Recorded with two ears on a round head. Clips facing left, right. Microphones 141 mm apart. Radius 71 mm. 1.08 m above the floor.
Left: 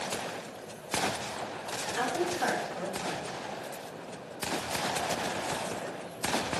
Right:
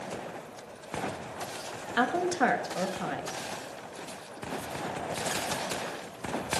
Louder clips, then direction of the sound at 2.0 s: Right 4 dB; 70° right (ahead or behind).